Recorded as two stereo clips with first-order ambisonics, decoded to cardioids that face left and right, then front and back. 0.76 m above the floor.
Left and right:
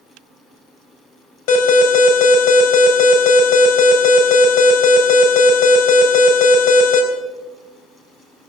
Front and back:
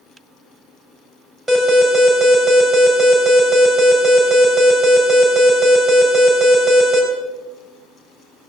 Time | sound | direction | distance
1.5 | an alarm | 90° left | 3.5 m